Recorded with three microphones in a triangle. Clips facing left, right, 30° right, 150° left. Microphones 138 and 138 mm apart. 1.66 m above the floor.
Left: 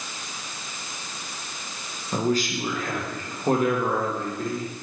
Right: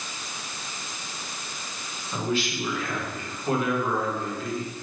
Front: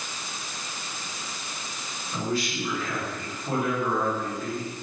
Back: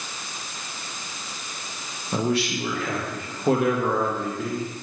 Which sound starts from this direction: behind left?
A man speaking, at 2.1 s.